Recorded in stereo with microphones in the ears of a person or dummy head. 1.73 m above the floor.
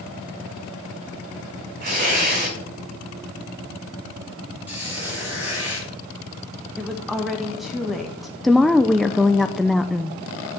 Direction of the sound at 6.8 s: Centre (ahead or behind).